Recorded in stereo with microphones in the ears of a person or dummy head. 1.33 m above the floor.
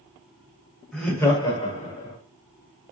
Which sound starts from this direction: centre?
Laughter, at 0.9 s.